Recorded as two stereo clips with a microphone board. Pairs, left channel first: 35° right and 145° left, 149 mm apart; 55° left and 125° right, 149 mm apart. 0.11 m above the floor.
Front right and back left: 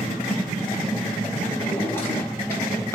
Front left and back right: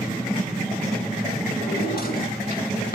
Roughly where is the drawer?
Ahead left.